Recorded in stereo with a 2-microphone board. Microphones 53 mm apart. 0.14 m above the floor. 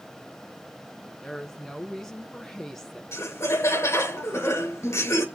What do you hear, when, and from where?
1.2 s a woman speaking: 10° left (ahead or behind), 1.2 m
3.1 s laughter: 60° left (ahead or behind), 2 m